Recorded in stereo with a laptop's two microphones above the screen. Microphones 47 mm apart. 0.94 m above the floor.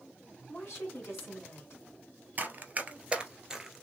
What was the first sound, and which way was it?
A woman speaking, 55° left (ahead or behind).